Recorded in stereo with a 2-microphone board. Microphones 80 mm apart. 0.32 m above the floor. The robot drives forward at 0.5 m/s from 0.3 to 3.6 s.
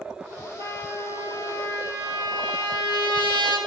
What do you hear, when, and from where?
0.6 s a trumpet: 45° left (ahead or behind), 3.5 m; by 3.6 s 70° left (ahead or behind), 2.5 m